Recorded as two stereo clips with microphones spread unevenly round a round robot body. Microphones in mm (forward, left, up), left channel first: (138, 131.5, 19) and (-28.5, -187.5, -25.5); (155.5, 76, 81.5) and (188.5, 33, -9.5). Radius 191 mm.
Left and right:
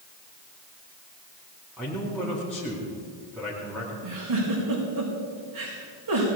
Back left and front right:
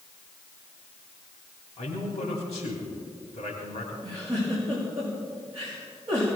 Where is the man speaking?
155° left, 3 m.